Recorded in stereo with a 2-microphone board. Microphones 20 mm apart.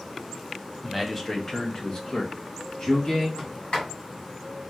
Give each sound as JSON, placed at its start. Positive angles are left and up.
{"t": 0.8, "sound": "a man speaking", "side_deg": 0, "distance_m": 0.7}
{"t": 3.4, "sound": "a sliding door", "side_deg": 65, "distance_m": 2.5}